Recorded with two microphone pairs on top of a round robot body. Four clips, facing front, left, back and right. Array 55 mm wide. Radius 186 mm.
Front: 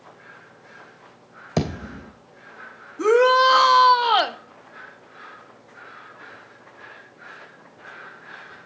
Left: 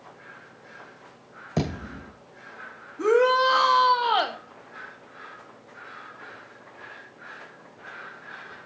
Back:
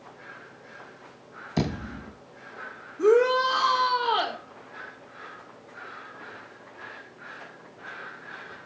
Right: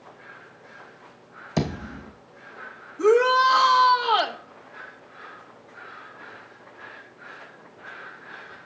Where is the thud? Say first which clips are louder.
Right 1 dB, front 3 dB; 5° right, 2.5 m.